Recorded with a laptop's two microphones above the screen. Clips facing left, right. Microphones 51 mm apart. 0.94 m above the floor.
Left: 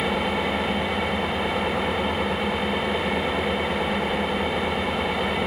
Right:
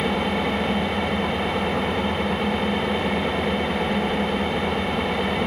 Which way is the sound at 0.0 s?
Centre (ahead or behind).